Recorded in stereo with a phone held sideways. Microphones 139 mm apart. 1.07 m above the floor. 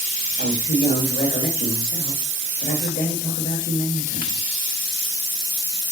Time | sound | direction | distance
0.4 | a man speaking | 85° left | 1.3 m